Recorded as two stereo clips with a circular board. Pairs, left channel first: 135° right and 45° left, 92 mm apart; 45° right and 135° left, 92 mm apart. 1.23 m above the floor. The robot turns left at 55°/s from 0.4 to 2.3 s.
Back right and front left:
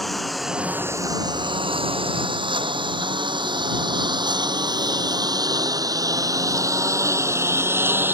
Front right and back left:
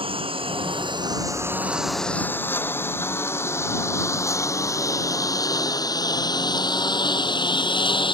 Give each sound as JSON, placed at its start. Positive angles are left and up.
{"t": 0.0, "sound": "a lawn mower", "azimuth_deg": 135}